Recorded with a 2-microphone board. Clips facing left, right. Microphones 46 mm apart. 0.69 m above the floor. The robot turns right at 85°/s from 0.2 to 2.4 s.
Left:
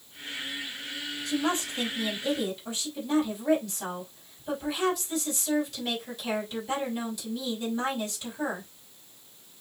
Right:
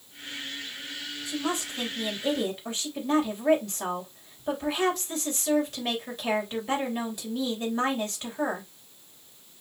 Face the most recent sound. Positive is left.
turn(degrees=-140)